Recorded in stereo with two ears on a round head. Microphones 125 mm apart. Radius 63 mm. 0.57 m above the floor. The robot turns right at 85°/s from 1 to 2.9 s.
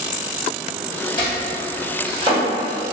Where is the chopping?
40° left (ahead or behind), 1.7 m; by 2.4 s 45° right (ahead or behind), 1.7 m.